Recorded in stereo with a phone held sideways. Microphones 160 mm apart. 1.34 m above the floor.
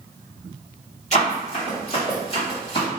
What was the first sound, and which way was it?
Running footsteps, 45° left (ahead or behind).